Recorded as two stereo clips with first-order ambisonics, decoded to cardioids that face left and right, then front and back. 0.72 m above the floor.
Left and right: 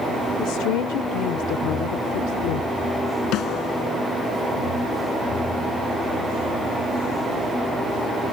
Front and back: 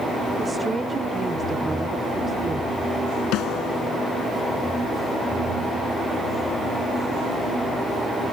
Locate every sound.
0.4 s a woman speaking: 105° left
3.3 s a snare drum: 45° left